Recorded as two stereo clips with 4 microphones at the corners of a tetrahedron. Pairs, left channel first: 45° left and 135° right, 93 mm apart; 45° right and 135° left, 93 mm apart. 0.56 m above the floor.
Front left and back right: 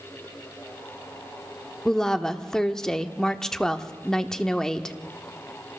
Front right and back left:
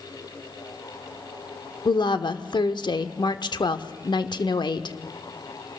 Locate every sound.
1.9 s a woman speaking: 40° right, 1.0 m